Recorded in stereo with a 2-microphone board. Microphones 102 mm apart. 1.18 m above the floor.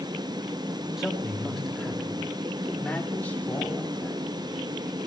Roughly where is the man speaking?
Centre.